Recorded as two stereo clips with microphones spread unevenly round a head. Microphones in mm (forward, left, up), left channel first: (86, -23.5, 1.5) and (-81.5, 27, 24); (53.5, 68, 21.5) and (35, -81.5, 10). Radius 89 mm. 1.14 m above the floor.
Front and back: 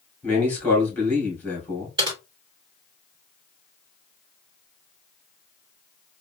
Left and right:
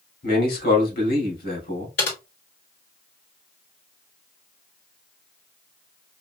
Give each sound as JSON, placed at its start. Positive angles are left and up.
{"t": 0.2, "sound": "a man speaking", "azimuth_deg": 65, "distance_m": 2.5}
{"t": 2.0, "sound": "typing on a keyboard", "azimuth_deg": 100, "distance_m": 3.5}